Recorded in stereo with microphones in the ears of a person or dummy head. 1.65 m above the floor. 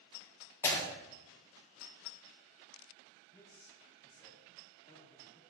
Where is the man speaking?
40° left (ahead or behind), 3 m.